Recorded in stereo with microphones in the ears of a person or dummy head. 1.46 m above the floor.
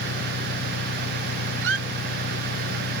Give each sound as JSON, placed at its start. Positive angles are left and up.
{"t": 0.0, "sound": "an engine running", "side_deg": 50}
{"t": 1.6, "sound": "a squeak", "side_deg": -80}